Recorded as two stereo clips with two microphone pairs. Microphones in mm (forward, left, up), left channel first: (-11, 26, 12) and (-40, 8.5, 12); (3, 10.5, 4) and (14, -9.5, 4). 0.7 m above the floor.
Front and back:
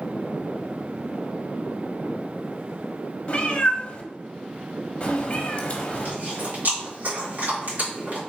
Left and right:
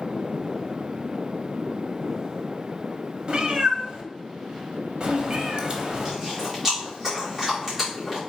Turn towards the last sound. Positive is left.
turn(degrees=-135)